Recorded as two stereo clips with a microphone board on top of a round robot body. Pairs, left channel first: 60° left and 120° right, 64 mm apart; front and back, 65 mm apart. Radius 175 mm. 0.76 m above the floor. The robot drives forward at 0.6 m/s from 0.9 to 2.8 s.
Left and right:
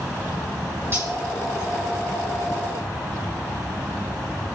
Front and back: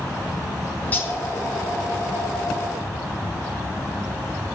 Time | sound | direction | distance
0.9 | cutlery clinking | 65° right | 4 m